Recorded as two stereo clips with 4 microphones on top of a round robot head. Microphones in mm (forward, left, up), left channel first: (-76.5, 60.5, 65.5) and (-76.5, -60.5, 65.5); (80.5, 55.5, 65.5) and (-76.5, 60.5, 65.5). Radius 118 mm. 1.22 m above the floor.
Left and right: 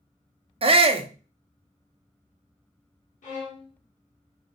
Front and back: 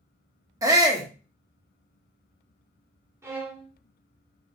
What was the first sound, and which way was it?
A shout, 115° right.